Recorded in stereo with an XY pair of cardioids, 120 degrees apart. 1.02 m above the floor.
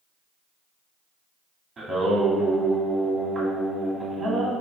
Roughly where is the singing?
Ahead right.